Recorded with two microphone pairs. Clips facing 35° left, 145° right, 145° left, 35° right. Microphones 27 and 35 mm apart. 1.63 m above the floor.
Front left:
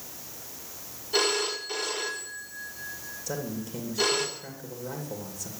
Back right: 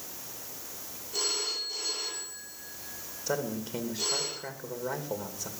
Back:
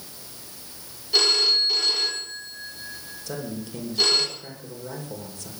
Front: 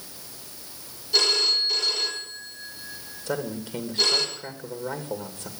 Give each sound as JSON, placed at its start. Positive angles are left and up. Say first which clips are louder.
{"t": 1.1, "sound": "a phone ringing", "louder": "front left 6 dB, back 2 dB", "azimuth_deg": 70, "distance_m": 3.5}
{"t": 3.3, "sound": "a man speaking", "louder": "back right 2 dB, front 4 dB", "azimuth_deg": -90, "distance_m": 2.5}